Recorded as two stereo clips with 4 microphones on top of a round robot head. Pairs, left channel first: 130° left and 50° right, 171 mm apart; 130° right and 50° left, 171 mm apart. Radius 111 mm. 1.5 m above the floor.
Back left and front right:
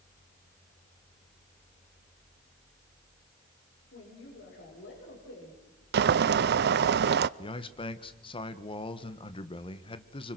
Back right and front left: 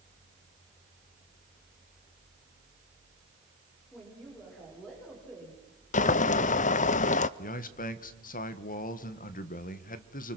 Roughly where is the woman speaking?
Behind left.